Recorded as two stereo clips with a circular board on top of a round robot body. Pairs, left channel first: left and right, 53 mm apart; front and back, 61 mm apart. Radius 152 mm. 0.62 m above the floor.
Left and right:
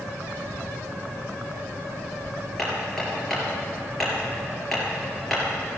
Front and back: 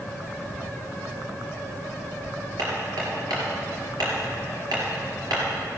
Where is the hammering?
175° left, 4 m.